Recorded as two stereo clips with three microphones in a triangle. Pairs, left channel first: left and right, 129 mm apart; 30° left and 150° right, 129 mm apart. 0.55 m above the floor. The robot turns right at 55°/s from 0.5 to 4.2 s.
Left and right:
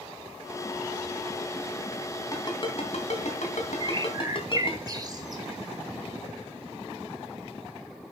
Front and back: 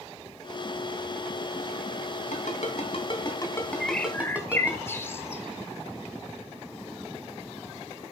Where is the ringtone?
30° left, 3 m; by 4.8 s 130° left, 3 m.